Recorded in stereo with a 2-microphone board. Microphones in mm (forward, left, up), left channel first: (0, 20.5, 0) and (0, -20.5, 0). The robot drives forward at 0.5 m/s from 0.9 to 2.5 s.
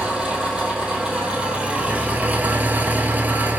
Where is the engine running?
20° right (ahead or behind), 1.5 m; by 3.6 s 40° right (ahead or behind), 0.8 m.